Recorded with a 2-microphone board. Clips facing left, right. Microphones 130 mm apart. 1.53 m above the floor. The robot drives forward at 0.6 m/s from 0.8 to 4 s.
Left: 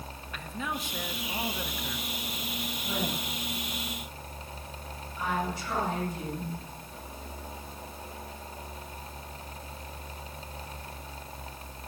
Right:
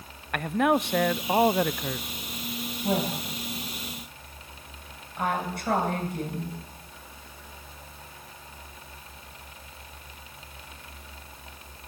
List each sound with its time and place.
0.3 s a man speaking: 65° right (ahead or behind), 0.7 m; by 2.3 s 45° right (ahead or behind), 0.9 m
2.8 s a woman speaking: 60° right (ahead or behind), 10 m; by 6.6 s 65° right (ahead or behind), 9.5 m